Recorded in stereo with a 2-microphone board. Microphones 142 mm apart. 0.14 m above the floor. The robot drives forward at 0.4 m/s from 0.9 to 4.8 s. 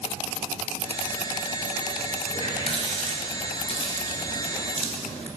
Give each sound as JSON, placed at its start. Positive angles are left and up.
{"t": 2.3, "sound": "a running tap", "side_deg": 40, "distance_m": 1.4}